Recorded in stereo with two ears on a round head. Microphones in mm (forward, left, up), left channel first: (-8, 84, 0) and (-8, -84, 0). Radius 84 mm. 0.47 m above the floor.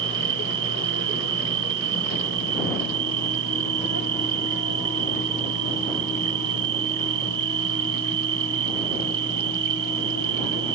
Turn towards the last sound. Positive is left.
turn(degrees=-65)  # may be behind; listen again after turning